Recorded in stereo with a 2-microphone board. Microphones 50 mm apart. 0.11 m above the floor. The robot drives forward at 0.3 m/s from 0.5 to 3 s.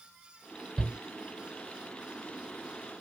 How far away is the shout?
About 1.7 m.